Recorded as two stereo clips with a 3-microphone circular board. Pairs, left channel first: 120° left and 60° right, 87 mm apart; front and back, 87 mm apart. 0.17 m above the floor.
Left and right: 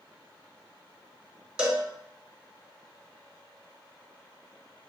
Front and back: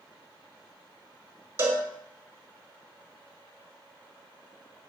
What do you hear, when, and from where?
1.6 s a cowbell: 135° right, 0.8 m